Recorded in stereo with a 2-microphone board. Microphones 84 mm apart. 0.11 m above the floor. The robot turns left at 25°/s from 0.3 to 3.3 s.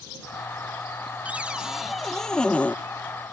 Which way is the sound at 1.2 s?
160° right.